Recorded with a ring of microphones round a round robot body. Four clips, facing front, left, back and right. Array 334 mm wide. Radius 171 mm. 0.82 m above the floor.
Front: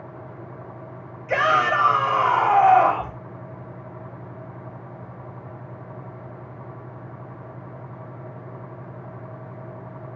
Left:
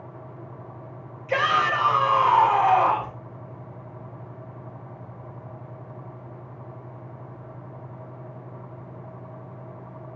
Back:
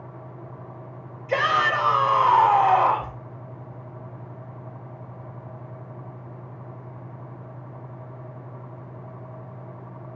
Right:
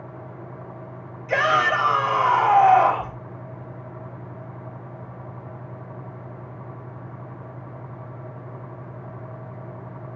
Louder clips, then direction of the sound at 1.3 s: Right 2 dB, front 2 dB; 15° right.